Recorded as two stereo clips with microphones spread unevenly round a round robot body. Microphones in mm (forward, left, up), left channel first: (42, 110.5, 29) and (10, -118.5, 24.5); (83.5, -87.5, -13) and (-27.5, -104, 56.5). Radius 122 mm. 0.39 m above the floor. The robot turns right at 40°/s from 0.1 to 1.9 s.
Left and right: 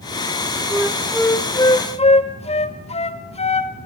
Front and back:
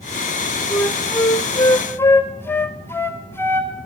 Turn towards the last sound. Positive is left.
turn(degrees=25)